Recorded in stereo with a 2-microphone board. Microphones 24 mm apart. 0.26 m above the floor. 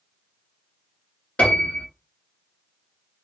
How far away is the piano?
About 1.1 m.